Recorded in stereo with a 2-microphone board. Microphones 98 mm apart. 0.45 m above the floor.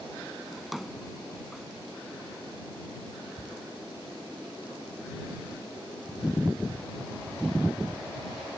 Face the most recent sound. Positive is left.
turn(degrees=15)  # may be behind; listen again after turning